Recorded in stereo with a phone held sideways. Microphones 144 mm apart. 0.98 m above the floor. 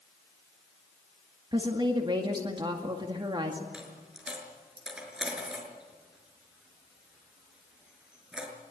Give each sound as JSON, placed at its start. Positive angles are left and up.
{"t": 1.5, "sound": "a woman speaking", "side_deg": -35, "distance_m": 2.0}
{"t": 3.7, "sound": "a dropped coin", "side_deg": -5, "distance_m": 6.0}